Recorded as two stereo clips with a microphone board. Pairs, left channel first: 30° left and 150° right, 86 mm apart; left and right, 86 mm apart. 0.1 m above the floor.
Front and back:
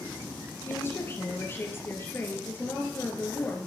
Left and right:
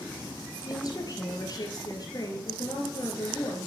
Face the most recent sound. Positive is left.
turn(degrees=85)